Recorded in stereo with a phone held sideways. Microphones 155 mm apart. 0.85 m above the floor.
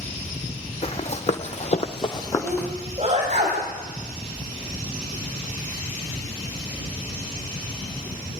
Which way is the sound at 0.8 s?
45° left (ahead or behind).